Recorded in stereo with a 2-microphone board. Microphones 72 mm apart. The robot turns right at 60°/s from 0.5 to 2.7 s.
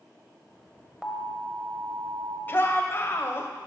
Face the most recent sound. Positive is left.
turn(degrees=35)  # may be behind; listen again after turning